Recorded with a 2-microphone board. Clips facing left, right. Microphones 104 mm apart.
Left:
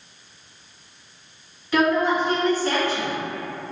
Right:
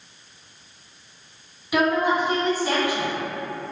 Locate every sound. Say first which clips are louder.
1.7 s a woman speaking: left 1 dB; 15° right (ahead or behind), 1.6 m